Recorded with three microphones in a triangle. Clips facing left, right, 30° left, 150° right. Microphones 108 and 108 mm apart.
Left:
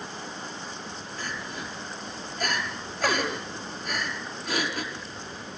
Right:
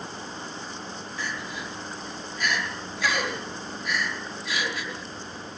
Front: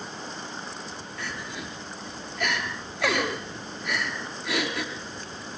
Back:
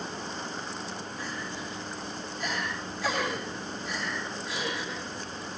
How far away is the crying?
About 5.5 m.